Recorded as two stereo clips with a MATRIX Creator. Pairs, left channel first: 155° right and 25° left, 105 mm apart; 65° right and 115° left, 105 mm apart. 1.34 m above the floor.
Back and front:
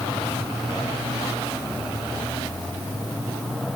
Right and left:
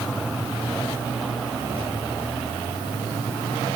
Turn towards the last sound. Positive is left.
No sound to turn to.